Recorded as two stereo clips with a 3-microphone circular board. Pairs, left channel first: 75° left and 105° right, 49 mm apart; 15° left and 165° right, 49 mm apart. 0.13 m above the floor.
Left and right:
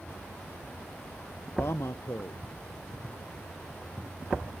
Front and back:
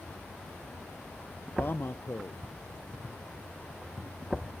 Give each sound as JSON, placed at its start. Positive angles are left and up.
{"t": 1.6, "sound": "a man speaking", "azimuth_deg": 55}